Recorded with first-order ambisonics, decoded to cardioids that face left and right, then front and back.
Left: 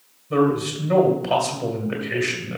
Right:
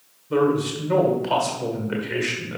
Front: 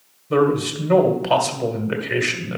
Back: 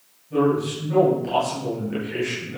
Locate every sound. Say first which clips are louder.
0.3 s a man speaking: even, front 3 dB; 5° right, 1.8 m